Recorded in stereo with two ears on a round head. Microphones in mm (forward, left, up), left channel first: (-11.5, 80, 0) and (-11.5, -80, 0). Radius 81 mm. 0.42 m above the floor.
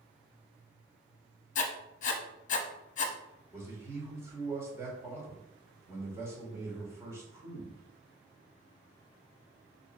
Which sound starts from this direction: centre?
A man speaking, at 3.5 s.